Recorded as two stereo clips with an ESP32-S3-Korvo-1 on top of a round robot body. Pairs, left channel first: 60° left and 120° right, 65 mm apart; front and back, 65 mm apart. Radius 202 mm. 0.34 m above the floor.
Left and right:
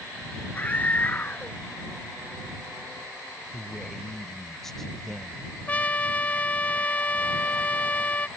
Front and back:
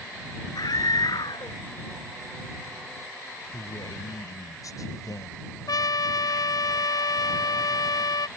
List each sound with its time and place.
0.6 s a scream: 5° right
3.5 s a man speaking: 25° right
5.7 s a trumpet: 5° right